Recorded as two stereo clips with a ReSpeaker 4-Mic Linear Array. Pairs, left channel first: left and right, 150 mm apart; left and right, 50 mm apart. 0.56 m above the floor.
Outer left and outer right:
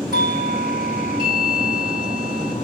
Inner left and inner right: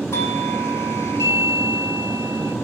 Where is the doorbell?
65° left (ahead or behind), 3 m.